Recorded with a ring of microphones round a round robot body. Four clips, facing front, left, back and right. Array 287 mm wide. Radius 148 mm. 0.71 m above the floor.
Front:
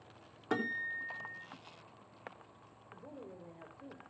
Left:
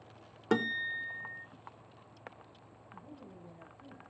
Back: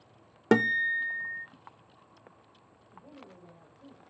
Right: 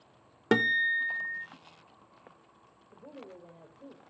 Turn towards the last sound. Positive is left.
turn(degrees=-60)